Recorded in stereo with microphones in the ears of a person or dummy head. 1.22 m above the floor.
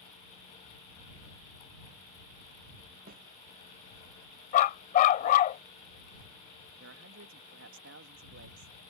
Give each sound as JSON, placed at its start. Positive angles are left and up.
{"t": 3.1, "sound": "a snare drum", "side_deg": -45}
{"t": 4.5, "sound": "a dog barking", "side_deg": 50}
{"t": 6.8, "sound": "a man speaking", "side_deg": -65}